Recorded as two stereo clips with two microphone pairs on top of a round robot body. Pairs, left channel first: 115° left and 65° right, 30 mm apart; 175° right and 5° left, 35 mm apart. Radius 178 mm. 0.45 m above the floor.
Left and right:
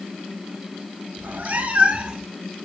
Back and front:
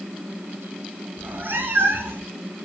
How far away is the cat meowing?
About 0.6 m.